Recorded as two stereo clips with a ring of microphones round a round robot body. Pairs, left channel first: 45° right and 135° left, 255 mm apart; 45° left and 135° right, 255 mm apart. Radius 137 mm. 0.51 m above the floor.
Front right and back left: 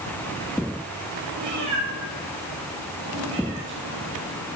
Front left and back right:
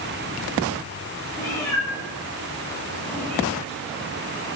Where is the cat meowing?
120° left, 6 m; by 4.1 s 130° left, 8.5 m.